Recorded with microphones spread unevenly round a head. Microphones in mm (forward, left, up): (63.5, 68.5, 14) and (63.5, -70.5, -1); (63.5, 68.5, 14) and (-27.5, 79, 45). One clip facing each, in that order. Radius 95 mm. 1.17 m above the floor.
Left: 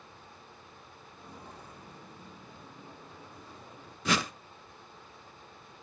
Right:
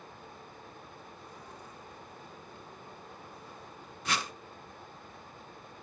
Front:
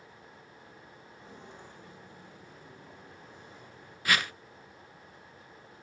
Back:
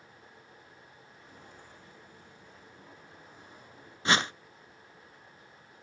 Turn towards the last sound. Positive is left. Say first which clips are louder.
# left 5 dB, back 2 dB
turn(degrees=115)